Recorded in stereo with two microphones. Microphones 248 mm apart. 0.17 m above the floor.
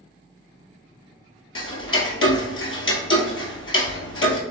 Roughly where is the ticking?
Left.